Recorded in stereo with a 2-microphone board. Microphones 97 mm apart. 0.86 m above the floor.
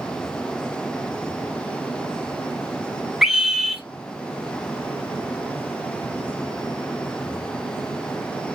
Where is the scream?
5° right (ahead or behind), 0.9 m.